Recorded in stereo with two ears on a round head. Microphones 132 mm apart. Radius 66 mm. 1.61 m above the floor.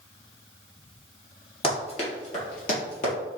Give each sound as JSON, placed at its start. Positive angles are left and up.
{"t": 1.6, "sound": "running footsteps", "side_deg": 35, "distance_m": 1.9}